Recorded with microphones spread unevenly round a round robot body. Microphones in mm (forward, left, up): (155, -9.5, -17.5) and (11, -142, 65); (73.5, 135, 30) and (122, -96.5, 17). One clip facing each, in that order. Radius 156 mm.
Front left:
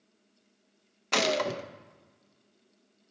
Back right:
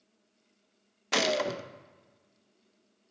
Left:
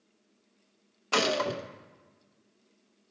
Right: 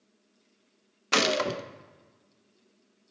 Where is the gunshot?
25° right, 0.5 m.